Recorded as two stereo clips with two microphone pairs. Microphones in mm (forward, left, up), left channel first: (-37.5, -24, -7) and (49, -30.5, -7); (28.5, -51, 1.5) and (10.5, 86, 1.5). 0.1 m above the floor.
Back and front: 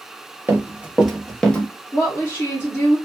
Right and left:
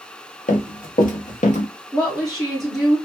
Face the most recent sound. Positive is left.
turn(degrees=-175)